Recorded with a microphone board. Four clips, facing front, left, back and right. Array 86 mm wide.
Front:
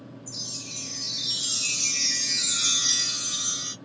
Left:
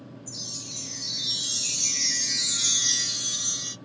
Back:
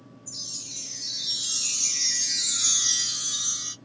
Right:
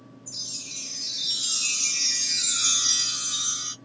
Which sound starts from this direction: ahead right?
A chime, at 0.3 s.